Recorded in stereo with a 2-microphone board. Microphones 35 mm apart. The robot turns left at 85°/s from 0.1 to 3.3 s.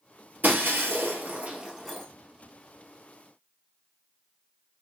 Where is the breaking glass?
55° right (ahead or behind), 1.6 m; by 2.1 s 10° left (ahead or behind), 1.6 m.